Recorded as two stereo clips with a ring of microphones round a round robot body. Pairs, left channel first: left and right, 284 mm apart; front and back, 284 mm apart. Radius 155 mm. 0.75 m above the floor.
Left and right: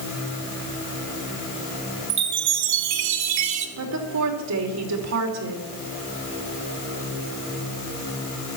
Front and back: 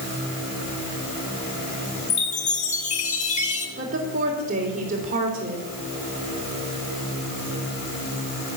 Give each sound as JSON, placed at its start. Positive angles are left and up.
{"t": 2.1, "sound": "a chime", "azimuth_deg": -70, "distance_m": 1.2}
{"t": 3.8, "sound": "a woman speaking", "azimuth_deg": -115, "distance_m": 3.0}